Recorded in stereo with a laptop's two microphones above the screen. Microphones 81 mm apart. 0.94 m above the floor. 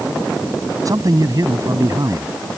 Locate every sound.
0.8 s a man speaking: 45° right (ahead or behind)